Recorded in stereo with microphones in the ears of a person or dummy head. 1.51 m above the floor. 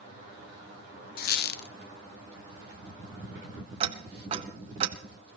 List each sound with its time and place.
1.2 s a squeak: 60° left (ahead or behind), 0.7 m
3.8 s ticking: 40° right (ahead or behind), 1.2 m